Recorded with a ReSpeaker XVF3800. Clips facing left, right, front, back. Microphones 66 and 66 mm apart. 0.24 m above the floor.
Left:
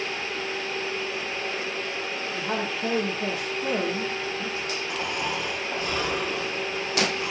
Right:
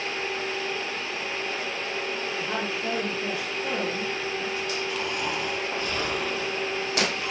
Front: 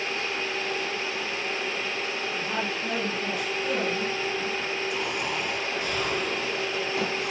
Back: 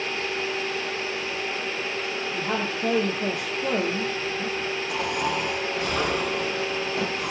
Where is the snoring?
160° left, 7 m.